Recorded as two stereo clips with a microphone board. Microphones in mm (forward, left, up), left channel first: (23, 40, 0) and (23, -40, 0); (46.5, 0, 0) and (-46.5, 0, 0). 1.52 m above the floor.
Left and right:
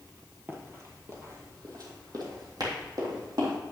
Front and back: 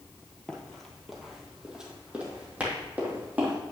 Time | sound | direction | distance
0.5 | running footsteps | 70° right | 1.7 m